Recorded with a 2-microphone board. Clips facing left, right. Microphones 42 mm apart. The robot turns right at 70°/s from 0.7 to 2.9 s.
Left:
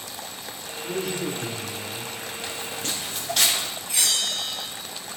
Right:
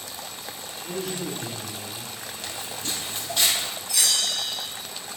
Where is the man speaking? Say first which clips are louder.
Left 3 dB; 5° right (ahead or behind), 1.2 m; by 2.2 s 25° left (ahead or behind), 1.2 m.